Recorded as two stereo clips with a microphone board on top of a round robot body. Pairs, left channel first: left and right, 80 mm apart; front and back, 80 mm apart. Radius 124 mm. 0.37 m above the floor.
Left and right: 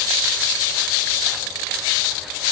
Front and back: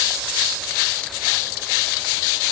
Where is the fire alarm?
No fire alarm in this recording.